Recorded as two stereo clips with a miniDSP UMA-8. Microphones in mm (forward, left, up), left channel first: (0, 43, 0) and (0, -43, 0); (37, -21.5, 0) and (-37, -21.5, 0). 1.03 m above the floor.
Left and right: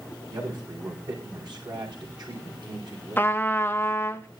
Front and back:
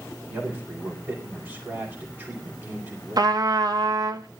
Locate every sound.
0.3 s a man speaking: 130° right, 4 m
3.2 s a trumpet: 155° left, 1.0 m